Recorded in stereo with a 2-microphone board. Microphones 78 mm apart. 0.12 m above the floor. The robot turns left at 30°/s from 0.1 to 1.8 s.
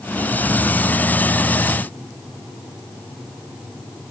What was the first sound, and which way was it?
Only background noise.